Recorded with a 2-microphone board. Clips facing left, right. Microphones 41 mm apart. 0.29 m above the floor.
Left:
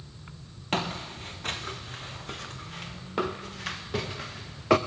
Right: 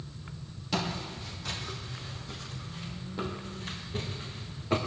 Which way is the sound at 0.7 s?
45° left (ahead or behind).